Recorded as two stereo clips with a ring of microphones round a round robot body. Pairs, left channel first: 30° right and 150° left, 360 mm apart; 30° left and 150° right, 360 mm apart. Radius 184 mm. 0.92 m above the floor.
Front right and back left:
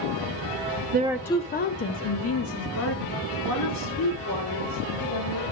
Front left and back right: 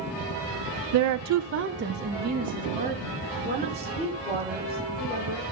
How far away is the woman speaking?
About 0.5 m.